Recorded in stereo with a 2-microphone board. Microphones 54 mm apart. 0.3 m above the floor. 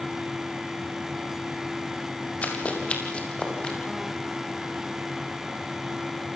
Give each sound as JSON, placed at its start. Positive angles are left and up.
{"t": 2.4, "sound": "running footsteps", "side_deg": 25, "distance_m": 6.0}